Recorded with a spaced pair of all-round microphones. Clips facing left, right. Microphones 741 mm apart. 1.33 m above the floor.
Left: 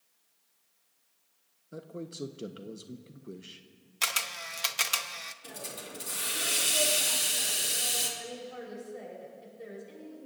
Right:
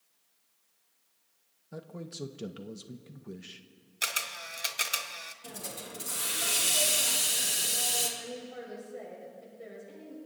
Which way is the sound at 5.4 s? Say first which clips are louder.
Right 1 dB; 75° right (ahead or behind).